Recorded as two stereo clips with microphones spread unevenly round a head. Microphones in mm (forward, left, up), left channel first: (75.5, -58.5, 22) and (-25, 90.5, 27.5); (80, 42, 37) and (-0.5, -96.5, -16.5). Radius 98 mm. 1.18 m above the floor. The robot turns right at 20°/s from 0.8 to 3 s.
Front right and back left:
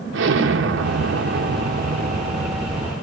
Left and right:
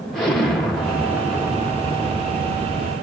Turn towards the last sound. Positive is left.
turn(degrees=-165)